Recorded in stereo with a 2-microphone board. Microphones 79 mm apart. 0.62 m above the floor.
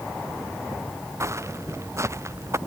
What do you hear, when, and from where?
1.2 s footsteps: 35° right (ahead or behind)